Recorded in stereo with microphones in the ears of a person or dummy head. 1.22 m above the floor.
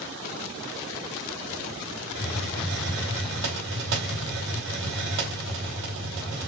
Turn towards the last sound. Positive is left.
turn(degrees=-65)  # may be behind; listen again after turning